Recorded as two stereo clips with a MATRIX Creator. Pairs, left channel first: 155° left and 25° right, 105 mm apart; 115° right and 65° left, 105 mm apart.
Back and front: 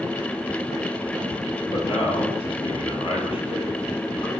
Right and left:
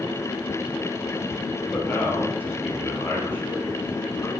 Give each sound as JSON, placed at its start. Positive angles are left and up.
{"t": 1.7, "sound": "a man speaking", "azimuth_deg": 180, "distance_m": 3.0}